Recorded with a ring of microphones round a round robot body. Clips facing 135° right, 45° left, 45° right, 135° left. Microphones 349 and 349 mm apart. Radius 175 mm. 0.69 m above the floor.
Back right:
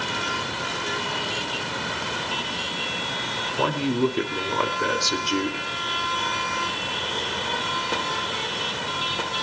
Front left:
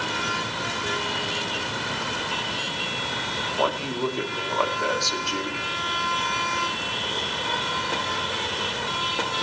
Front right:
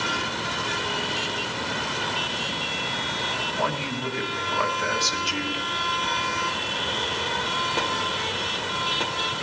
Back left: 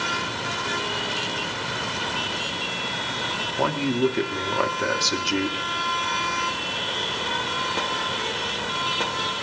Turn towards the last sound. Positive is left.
turn(degrees=165)